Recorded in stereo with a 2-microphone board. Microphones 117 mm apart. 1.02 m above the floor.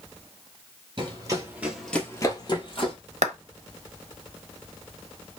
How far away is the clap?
About 0.7 m.